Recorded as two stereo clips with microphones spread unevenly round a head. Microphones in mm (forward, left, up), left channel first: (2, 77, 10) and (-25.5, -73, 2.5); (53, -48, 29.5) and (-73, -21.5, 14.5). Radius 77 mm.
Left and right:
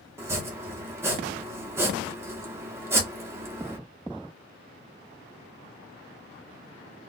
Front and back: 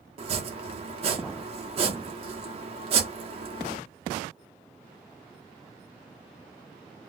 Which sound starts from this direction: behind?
Chopping, at 0.2 s.